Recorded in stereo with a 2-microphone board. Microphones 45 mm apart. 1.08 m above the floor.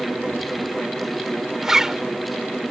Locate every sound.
1.6 s a zipper: 10° right (ahead or behind)